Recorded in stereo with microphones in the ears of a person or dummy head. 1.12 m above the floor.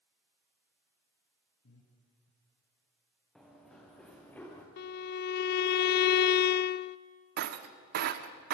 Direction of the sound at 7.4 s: 55° right (ahead or behind).